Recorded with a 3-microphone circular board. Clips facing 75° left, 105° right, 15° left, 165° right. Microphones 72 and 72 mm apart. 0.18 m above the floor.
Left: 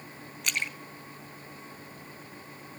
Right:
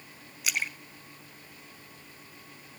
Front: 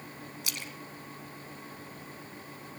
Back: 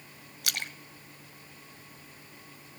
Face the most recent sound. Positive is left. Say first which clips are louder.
# even, back 7 dB
turn(degrees=170)